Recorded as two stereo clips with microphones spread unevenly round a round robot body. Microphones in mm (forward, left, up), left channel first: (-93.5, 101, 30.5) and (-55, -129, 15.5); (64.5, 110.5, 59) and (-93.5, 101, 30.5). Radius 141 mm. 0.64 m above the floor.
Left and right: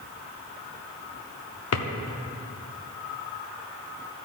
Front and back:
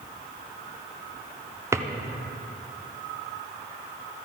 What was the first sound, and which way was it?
A drawer, 110° left.